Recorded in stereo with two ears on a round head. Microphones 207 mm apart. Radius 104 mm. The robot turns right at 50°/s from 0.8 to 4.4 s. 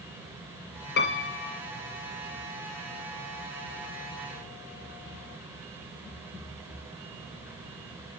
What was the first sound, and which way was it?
A piano, 45° left.